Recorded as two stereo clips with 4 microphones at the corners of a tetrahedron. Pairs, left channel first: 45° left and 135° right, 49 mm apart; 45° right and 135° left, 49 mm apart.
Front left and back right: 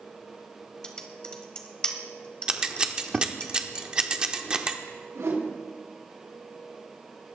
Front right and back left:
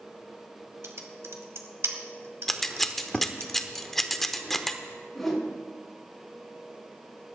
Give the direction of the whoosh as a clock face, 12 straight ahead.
4 o'clock.